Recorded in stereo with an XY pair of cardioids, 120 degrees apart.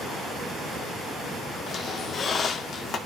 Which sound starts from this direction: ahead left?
A squeak, at 1.7 s.